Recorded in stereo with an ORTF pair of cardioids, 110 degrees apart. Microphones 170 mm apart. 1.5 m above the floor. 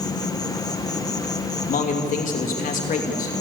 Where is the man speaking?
50° left, 3 m.